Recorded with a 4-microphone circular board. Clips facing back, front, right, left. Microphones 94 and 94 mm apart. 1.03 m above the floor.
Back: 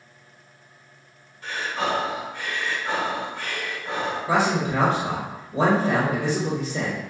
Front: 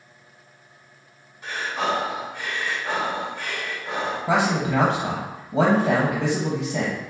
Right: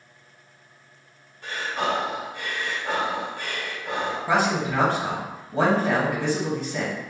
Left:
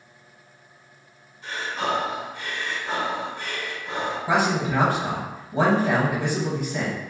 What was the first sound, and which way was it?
Breathing, 80° right.